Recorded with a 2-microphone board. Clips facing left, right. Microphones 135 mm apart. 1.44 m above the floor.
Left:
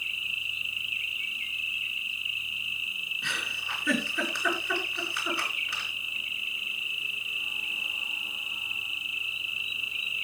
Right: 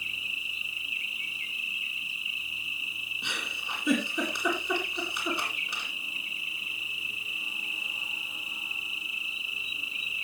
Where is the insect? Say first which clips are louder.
Even; 35° right (ahead or behind), 1.7 m.